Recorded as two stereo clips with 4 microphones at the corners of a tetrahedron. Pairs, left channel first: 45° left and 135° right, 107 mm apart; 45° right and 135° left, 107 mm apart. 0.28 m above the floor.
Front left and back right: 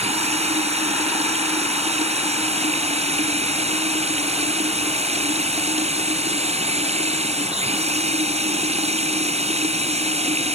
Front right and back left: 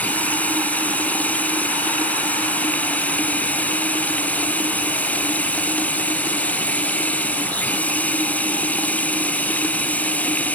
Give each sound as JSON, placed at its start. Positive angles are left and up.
{"t": 0.0, "sound": "running water", "azimuth_deg": -120}